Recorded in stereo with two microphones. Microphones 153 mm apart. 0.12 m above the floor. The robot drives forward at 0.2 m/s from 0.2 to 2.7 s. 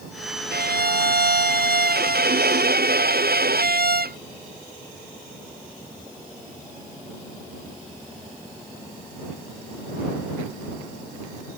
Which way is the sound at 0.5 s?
85° right.